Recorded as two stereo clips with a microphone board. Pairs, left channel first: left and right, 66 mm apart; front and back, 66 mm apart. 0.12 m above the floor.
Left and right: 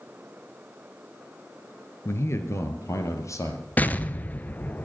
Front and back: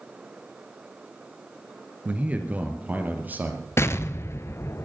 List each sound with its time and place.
2.0 s a man speaking: 120° left, 2.0 m
3.8 s an explosion: 30° left, 0.8 m